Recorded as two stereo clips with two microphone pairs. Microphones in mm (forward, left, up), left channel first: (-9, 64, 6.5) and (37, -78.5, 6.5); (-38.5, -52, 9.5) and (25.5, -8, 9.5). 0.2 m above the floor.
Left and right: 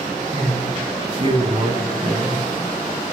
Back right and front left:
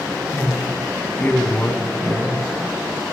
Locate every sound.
0.3 s a man speaking: 95° right, 1.3 m